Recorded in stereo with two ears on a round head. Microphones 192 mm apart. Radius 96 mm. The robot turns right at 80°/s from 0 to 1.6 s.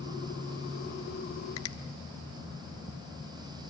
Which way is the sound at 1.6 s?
70° left (ahead or behind).